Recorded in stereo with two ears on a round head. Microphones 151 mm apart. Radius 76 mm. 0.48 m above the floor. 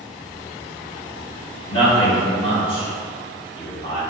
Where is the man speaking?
30° left (ahead or behind), 1.0 m.